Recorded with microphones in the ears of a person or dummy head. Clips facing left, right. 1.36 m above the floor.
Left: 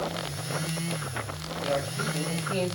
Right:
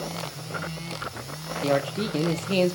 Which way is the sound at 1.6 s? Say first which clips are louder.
Right 5 dB; 70° right (ahead or behind).